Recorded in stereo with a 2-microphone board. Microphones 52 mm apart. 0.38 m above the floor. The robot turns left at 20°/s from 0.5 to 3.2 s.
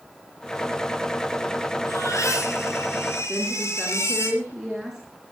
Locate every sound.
1.9 s a baby crying: 80° left, 6 m; by 4.3 s 70° left (ahead or behind), 6 m
3.3 s a woman speaking: 5° right (ahead or behind), 4.5 m